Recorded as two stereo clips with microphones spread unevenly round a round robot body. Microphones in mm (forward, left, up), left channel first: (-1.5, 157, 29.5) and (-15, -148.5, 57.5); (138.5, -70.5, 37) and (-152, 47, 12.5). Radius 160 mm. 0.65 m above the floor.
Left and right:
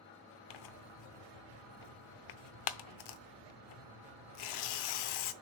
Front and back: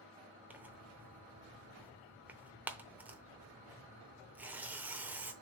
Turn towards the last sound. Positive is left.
turn(degrees=70)